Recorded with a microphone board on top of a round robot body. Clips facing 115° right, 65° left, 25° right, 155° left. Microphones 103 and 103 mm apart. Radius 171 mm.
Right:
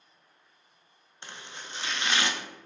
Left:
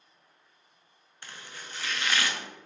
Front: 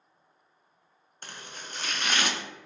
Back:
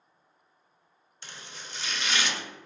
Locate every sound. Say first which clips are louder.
1.2 s chopping: right 1 dB, front 2 dB; 50° right, 0.6 m